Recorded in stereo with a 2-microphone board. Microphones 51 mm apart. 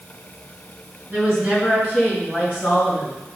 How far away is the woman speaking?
About 3.5 m.